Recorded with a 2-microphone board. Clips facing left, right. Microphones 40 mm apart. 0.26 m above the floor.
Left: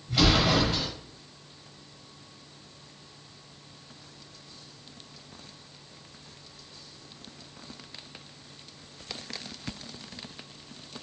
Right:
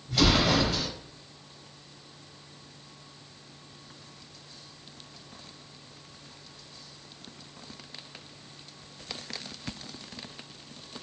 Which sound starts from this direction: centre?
An explosion, at 0.1 s.